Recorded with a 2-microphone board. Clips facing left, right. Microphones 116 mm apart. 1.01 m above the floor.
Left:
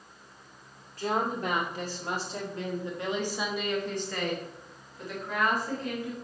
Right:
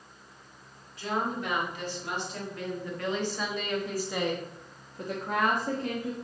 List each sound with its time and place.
1.0 s a woman speaking: 45° left (ahead or behind), 2.5 m; by 6.1 s 65° right (ahead or behind), 1.6 m